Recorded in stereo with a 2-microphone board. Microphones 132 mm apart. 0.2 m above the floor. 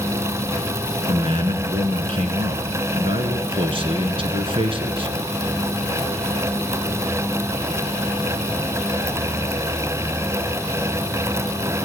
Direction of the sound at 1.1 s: 45° right (ahead or behind).